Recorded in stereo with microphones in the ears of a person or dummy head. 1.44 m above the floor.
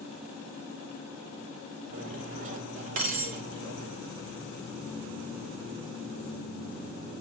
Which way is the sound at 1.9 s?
35° right (ahead or behind).